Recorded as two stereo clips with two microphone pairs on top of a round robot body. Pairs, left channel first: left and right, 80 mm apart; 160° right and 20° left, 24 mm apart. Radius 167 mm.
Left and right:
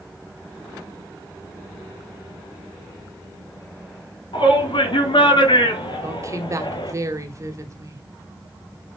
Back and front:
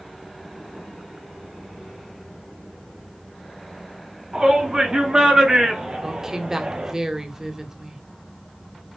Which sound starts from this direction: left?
A shout, at 4.3 s.